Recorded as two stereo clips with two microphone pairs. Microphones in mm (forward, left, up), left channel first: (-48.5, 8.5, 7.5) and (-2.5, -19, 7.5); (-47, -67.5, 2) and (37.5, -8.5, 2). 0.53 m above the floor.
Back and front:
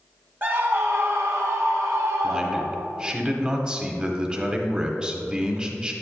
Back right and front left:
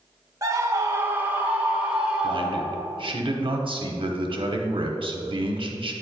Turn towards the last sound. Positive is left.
turn(degrees=35)